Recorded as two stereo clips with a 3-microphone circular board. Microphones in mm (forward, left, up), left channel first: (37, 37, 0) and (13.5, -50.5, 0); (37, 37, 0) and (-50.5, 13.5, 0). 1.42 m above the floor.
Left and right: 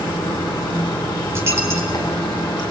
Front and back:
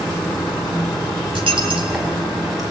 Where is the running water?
110° left, 4.5 m.